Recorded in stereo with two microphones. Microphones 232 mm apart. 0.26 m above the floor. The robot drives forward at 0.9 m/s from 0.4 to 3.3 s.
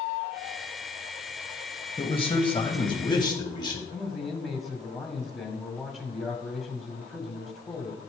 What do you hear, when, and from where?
2.0 s a man speaking: 25° left (ahead or behind), 1.6 m; by 3.8 s 20° left (ahead or behind), 2 m
3.9 s a man speaking: centre (ahead or behind), 1.9 m